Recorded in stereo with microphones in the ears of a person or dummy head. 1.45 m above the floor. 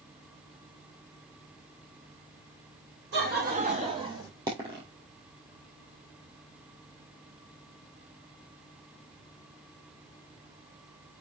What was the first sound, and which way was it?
Laughter, 50° right (ahead or behind).